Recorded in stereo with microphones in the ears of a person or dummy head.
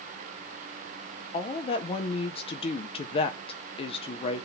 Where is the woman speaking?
35° left (ahead or behind), 0.7 m.